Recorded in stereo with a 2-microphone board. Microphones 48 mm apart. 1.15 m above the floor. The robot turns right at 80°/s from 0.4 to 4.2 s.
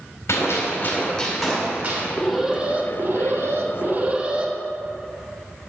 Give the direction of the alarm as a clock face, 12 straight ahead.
6 o'clock.